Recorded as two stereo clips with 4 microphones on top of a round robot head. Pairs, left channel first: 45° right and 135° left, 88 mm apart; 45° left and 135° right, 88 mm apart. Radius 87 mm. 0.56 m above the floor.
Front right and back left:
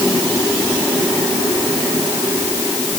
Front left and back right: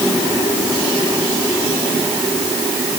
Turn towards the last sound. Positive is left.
No sound to turn to.